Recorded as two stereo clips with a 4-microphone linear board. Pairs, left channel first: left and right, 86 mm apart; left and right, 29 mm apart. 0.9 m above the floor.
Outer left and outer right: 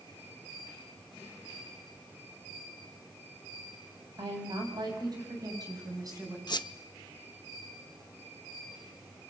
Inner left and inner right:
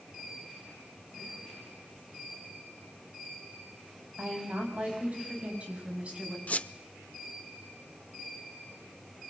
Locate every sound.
4.2 s a woman speaking: 55° right (ahead or behind), 7 m; by 6.4 s 40° right (ahead or behind), 9 m
6.5 s a squeak: 55° left (ahead or behind), 0.8 m